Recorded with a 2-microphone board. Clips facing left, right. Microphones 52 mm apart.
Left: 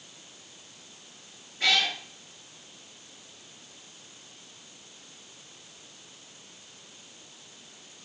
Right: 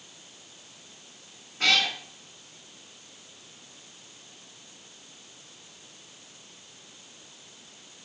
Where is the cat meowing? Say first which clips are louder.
Right 1 dB; 70° right (ahead or behind), 3 m.